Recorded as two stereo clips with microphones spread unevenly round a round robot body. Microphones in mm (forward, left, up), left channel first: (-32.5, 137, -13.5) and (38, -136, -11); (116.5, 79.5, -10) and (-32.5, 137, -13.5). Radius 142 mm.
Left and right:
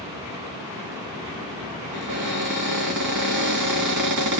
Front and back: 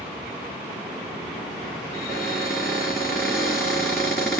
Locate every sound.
1.9 s a cupboard door: 100° right, 3 m